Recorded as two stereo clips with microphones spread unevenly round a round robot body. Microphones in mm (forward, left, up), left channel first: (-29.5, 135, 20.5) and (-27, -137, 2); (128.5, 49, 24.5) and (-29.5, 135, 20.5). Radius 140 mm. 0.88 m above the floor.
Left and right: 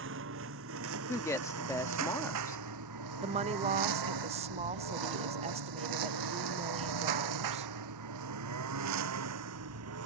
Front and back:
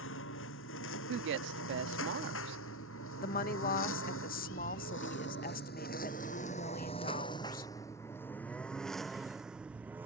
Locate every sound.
0.0 s a lawn mower: 40° right; by 10.1 s 125° right
1.1 s a woman speaking: 170° left
3.2 s a woman speaking: 35° right